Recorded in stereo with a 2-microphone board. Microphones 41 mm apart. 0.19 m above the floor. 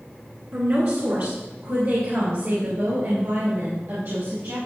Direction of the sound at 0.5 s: 55° right (ahead or behind).